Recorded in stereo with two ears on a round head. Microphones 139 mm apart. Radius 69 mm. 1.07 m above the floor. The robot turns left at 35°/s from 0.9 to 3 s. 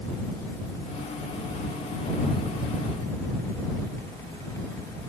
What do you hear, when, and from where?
Only background noise.